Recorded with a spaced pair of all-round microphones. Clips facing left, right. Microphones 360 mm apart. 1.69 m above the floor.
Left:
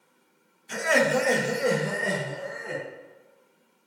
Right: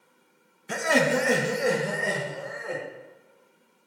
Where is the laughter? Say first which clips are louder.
Even; 65° right (ahead or behind), 1.0 m; by 2.8 s 35° left (ahead or behind), 2.5 m.